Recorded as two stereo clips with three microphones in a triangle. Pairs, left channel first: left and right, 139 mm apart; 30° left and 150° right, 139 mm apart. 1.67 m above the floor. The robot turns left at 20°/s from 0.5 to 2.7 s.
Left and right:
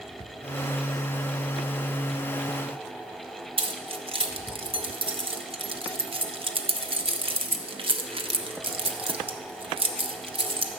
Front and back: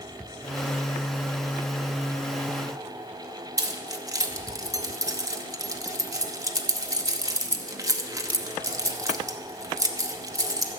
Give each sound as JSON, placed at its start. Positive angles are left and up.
{"t": 3.6, "sound": "keys jangling", "azimuth_deg": -100, "distance_m": 0.8}